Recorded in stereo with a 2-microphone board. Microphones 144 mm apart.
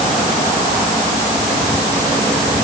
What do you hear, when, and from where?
Only background noise.